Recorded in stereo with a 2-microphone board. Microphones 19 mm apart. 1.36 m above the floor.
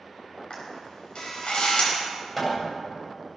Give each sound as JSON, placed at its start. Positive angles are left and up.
{"t": 0.5, "sound": "a camera shutter", "side_deg": 55, "distance_m": 5.5}
{"t": 2.4, "sound": "hammering", "side_deg": 0, "distance_m": 7.5}